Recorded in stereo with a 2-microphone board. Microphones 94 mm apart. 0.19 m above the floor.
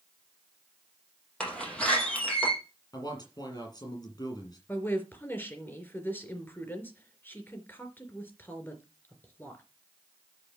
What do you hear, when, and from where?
1.4 s a door slam: 10° left (ahead or behind), 5 m
2.9 s a man speaking: 45° left (ahead or behind), 6 m
4.7 s a woman speaking: 20° left (ahead or behind), 3.5 m